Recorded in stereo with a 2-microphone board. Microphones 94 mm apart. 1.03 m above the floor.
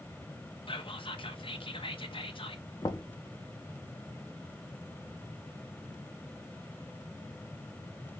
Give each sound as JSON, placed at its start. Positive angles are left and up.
{"t": 0.7, "sound": "whispering", "side_deg": 70, "distance_m": 0.9}
{"t": 2.8, "sound": "knocking", "side_deg": 50, "distance_m": 0.6}